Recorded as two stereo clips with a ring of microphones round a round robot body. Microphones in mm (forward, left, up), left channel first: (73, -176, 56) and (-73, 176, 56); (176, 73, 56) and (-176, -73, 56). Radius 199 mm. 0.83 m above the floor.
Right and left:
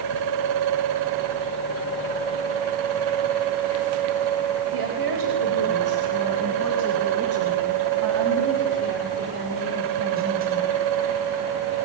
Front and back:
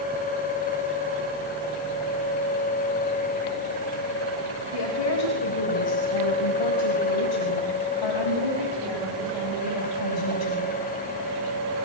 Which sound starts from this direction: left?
A woman speaking, at 4.7 s.